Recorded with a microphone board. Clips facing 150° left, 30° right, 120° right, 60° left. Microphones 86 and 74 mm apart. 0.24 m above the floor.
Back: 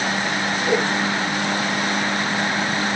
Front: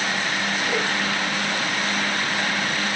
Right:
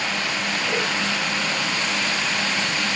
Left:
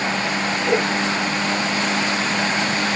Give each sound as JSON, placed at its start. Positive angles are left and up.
{"t": 0.7, "sound": "a whoosh", "azimuth_deg": 100, "distance_m": 3.0}